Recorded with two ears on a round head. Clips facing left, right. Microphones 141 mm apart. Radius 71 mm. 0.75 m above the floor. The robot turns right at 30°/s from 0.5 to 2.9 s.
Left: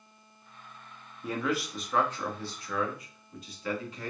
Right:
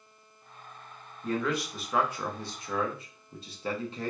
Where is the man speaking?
10° left (ahead or behind), 0.9 m; by 4.1 s 25° right (ahead or behind), 0.9 m.